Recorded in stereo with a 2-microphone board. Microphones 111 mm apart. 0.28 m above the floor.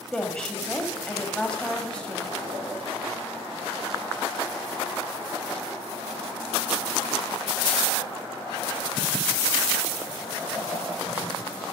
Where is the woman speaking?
10° left (ahead or behind), 1.0 m.